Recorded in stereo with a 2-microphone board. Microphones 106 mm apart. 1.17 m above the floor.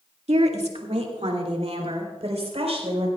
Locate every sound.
0.3 s a woman speaking: 85° right, 1.8 m; by 3.1 s 75° right (ahead or behind), 5 m